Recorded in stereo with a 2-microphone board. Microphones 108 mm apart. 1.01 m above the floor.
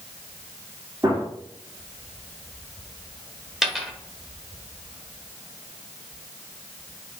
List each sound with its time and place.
1.0 s a gunshot: 35° right (ahead or behind), 1.7 m
3.6 s a dropped coin: 5° right (ahead or behind), 1.0 m